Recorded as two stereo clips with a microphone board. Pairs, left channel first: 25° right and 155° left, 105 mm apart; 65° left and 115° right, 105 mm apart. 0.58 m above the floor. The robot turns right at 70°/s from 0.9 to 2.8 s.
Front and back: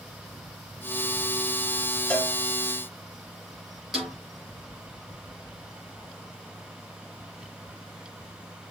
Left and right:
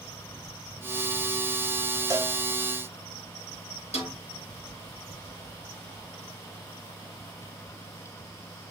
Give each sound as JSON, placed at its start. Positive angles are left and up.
{"t": 2.1, "sound": "a cowbell", "azimuth_deg": -95, "distance_m": 1.5}
{"t": 3.9, "sound": "a snare drum", "azimuth_deg": 70, "distance_m": 4.5}